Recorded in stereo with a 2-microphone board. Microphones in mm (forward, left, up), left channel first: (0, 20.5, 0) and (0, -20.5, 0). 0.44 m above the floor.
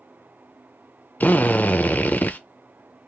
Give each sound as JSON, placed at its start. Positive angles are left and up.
{"t": 1.2, "sound": "a drill", "side_deg": 50, "distance_m": 0.6}